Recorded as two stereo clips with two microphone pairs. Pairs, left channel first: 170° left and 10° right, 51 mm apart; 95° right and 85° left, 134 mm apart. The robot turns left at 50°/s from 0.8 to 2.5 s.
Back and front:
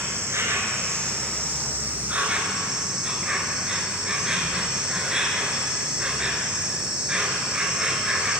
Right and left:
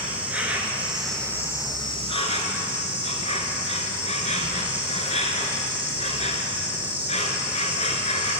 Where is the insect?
5° left, 0.7 m; by 8.4 s 80° right, 0.7 m.